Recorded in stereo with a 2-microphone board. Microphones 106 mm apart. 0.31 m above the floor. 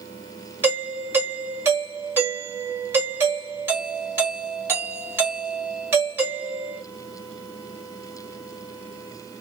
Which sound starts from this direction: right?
A doorbell, at 0.6 s.